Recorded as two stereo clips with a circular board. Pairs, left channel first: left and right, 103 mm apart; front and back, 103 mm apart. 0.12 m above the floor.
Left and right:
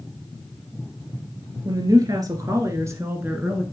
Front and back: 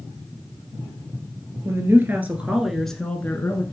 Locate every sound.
1.6 s a woman speaking: 125° right, 2.0 m; by 3.6 s 25° right, 1.4 m